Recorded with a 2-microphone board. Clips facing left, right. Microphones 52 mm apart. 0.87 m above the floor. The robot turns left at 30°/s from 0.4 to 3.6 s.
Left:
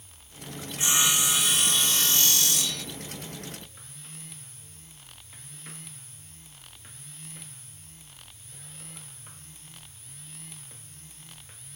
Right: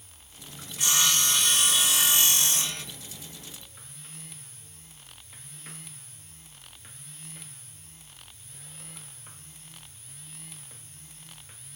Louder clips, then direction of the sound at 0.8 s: Even; 25° left.